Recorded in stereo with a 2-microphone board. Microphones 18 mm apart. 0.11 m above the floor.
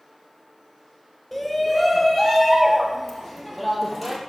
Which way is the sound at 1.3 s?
5° left (ahead or behind).